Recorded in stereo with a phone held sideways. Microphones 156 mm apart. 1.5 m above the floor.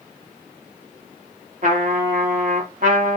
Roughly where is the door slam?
I don't hear a door slam.